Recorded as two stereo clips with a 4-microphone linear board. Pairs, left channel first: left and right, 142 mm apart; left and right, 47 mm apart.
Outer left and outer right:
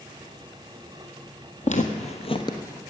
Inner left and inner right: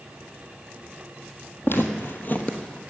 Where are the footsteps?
55° left (ahead or behind), 1.4 m; by 2.8 s 15° left (ahead or behind), 1.4 m.